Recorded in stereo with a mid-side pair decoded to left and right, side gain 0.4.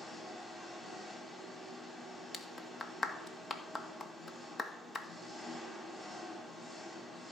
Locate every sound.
0.0 s an engine running: 20° left, 4 m
2.3 s a clap: 35° left, 1.8 m